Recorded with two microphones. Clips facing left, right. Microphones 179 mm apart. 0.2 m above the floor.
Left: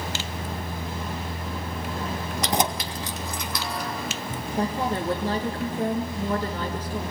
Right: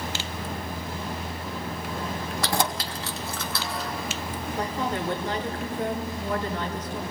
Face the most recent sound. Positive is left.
turn(degrees=30)  # may be behind; listen again after turning